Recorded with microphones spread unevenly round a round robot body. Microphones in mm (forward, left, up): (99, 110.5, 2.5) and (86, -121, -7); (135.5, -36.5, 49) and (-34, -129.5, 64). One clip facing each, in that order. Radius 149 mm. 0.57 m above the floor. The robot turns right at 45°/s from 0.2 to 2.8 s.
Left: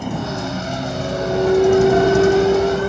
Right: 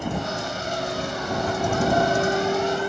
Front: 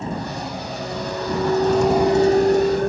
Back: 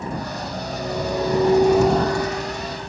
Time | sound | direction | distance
0.0 | a vehicle | 100° left | ?